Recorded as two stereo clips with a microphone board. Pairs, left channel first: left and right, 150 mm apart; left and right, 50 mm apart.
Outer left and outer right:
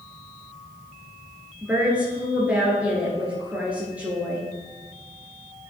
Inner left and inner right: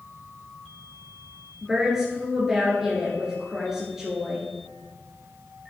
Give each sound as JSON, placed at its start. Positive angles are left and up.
{"t": 1.6, "sound": "a woman speaking", "side_deg": -10, "distance_m": 2.0}